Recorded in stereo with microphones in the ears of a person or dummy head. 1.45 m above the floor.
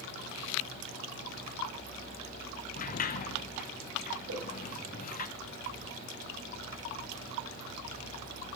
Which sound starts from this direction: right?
A whoosh, at 4.3 s.